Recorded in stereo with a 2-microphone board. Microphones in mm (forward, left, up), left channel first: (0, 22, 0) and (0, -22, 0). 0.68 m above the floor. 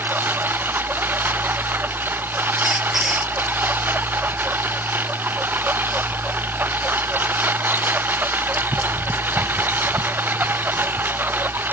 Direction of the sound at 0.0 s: 50° right (ahead or behind).